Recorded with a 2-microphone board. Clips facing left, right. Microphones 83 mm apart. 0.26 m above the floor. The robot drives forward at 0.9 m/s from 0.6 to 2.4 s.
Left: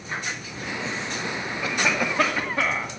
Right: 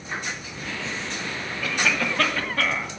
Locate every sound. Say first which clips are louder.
1.6 s a cough: even; 20° left (ahead or behind), 1.0 m; by 2.9 s 15° left (ahead or behind), 1.5 m